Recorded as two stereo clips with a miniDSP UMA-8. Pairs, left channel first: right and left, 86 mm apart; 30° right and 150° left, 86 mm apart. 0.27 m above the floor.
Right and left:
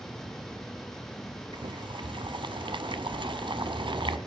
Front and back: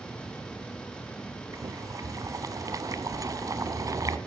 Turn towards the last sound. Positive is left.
turn(degrees=105)